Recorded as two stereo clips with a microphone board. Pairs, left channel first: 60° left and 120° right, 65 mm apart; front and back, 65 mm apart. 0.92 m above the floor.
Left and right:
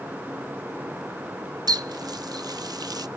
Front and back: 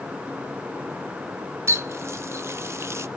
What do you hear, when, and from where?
1.7 s a running tap: 135° right, 0.6 m